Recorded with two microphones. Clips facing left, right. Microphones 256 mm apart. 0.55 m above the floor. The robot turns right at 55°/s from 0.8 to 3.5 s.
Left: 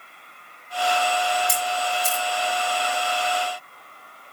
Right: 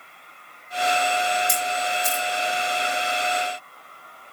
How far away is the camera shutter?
About 5 m.